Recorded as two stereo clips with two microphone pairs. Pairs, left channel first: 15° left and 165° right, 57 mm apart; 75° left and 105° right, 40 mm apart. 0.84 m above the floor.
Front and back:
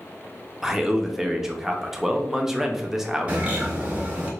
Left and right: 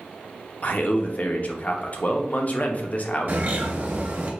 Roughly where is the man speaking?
Left.